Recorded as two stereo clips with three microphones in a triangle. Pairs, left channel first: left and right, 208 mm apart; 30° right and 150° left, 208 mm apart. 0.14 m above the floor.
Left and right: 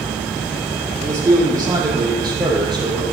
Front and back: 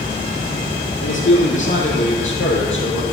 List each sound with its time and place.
1.0 s a man speaking: 15° right, 6.5 m; by 3.0 s 20° right, 5.5 m